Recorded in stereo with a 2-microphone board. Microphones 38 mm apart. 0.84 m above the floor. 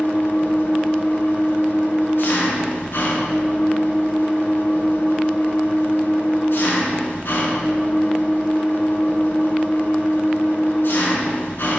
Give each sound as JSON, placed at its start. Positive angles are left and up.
{"t": 0.0, "sound": "an engine running", "side_deg": 85, "distance_m": 4.5}